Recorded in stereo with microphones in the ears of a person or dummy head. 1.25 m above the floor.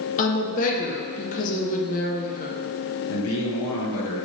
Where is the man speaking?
75° left (ahead or behind), 1.0 m.